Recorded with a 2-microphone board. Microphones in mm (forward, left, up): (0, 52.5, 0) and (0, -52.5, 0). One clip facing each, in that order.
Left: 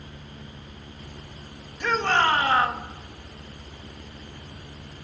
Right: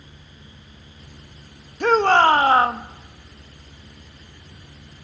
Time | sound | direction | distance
1.8 | a shout | 50° right (ahead or behind) | 1.6 m